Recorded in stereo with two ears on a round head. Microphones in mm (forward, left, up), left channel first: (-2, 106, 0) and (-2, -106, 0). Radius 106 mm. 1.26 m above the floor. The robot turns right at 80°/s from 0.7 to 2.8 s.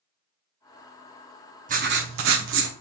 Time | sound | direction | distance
1.7 | writing | 140° right | 0.5 m